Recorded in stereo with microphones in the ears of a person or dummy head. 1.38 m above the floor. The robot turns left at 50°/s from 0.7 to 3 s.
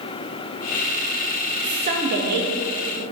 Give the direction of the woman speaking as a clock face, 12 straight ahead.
1 o'clock.